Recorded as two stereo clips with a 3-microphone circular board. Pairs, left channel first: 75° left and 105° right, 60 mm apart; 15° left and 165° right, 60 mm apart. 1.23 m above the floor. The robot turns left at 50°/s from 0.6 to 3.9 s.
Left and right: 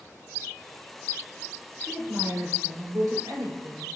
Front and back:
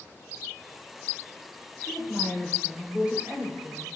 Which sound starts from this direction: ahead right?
A woman speaking, at 1.9 s.